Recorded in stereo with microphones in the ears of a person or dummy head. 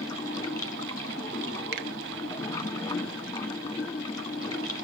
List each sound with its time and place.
0.0 s running water: 20° left (ahead or behind), 1.2 m
1.7 s a finger snap: 65° right (ahead or behind), 1.0 m